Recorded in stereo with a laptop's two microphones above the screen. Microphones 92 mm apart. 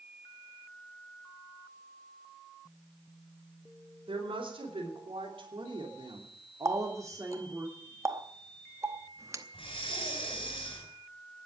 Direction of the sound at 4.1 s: 80° right.